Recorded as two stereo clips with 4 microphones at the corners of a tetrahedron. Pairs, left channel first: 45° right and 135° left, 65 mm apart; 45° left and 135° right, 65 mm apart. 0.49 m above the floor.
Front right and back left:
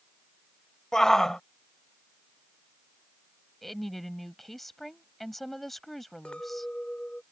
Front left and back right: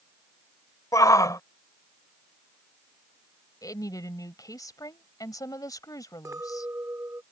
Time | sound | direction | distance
0.9 | a shout | 35° left | ?
3.6 | a woman speaking | 40° left | ?
6.2 | a clink | 115° right | ?